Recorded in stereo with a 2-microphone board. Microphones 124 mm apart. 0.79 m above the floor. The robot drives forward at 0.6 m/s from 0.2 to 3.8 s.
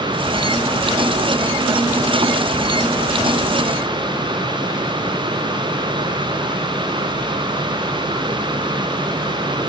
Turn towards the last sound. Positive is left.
No sound to turn to.